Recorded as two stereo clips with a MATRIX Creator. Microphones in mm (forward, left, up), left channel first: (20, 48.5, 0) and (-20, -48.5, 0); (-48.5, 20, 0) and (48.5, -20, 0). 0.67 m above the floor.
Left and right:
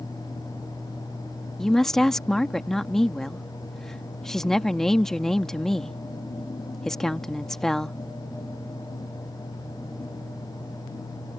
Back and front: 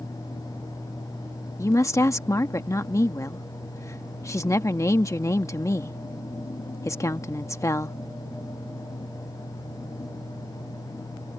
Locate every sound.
1.6 s a woman speaking: 150° left